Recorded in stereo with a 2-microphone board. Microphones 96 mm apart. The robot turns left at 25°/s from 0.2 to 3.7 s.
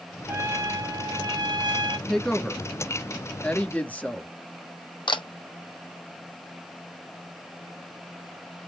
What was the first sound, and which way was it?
A trumpet, 45° right.